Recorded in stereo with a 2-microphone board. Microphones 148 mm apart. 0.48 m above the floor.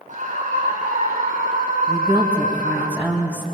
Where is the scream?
60° right (ahead or behind), 3.5 m; by 2.9 s 75° right (ahead or behind), 6 m.